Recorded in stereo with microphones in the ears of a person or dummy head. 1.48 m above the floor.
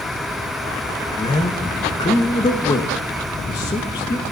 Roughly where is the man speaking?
Centre.